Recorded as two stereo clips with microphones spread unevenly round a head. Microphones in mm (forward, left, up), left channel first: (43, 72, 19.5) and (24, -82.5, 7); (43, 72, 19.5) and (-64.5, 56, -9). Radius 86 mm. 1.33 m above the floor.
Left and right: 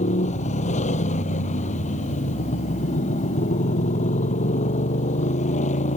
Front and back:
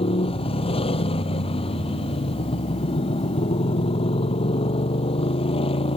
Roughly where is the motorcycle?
Ahead left.